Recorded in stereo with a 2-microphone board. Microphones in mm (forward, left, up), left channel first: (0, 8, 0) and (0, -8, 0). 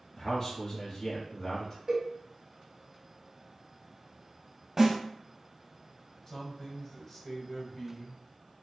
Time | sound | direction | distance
0.2 | a man speaking | 20° left (ahead or behind) | 1.9 m
1.9 | a cowbell | 35° right (ahead or behind) | 1.3 m
4.8 | a snare drum | 30° right (ahead or behind) | 1.5 m
6.3 | a man speaking | 25° left (ahead or behind) | 1.1 m